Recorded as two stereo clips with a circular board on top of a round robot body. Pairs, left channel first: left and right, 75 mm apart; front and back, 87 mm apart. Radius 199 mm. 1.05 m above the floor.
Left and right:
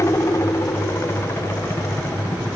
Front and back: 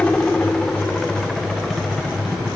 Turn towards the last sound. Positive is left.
turn(degrees=95)